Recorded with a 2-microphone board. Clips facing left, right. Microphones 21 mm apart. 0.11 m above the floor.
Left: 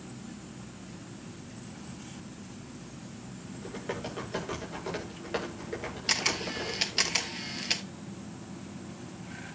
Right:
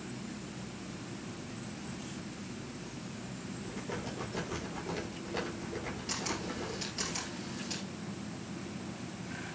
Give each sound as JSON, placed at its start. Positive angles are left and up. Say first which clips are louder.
{"t": 3.5, "sound": "typing on a keyboard", "louder": "left 4 dB", "side_deg": 50, "distance_m": 8.0}
{"t": 6.1, "sound": "a camera shutter", "louder": "left 9 dB", "side_deg": 60, "distance_m": 1.0}